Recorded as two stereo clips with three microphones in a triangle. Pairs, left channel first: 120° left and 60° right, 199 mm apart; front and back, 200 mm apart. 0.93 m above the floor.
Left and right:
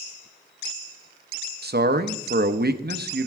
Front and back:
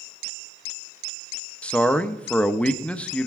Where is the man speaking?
85° right, 0.7 m.